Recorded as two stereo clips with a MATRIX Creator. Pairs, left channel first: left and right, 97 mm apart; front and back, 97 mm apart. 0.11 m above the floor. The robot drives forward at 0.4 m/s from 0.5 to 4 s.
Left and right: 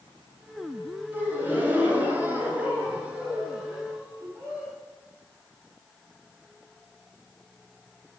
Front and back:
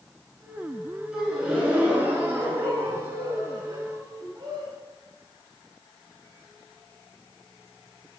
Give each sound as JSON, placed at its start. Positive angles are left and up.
{"t": 1.1, "sound": "a gasp", "azimuth_deg": -110, "distance_m": 1.7}